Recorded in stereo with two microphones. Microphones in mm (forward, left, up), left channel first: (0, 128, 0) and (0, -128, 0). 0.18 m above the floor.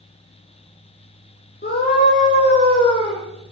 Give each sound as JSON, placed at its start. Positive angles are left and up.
{"t": 1.6, "sound": "a scream", "side_deg": 40, "distance_m": 2.5}